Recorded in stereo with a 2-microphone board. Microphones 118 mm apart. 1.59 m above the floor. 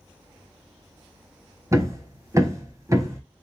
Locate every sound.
1.7 s hammering: 25° right (ahead or behind), 1.1 m